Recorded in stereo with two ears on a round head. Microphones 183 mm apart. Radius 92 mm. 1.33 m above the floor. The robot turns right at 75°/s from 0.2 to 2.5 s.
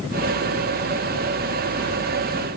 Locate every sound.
Only background noise.